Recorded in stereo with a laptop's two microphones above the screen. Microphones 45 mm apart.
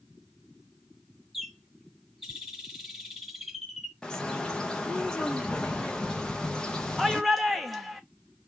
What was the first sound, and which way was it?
A bird, centre (ahead or behind).